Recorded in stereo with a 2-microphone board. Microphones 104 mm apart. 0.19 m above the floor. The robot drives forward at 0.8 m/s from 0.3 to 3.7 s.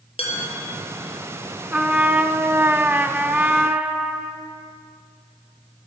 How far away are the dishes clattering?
About 2.5 m.